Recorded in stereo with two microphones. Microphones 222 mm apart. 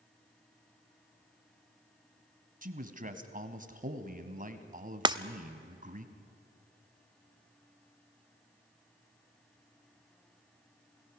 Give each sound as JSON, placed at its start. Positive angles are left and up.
{"t": 2.6, "sound": "a man speaking", "side_deg": -40, "distance_m": 1.5}
{"t": 5.0, "sound": "breaking glass", "side_deg": -20, "distance_m": 0.5}